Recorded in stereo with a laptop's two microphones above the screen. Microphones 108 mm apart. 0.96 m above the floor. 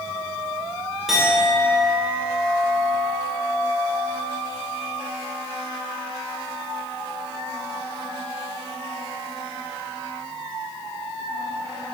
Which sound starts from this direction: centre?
A clink, at 1.1 s.